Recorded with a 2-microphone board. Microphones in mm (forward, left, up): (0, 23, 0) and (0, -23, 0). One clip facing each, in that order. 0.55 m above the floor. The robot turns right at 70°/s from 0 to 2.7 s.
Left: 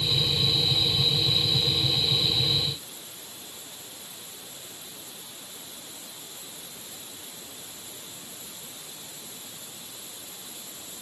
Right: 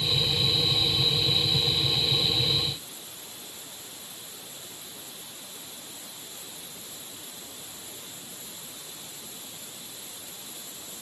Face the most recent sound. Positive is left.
No sound to turn to.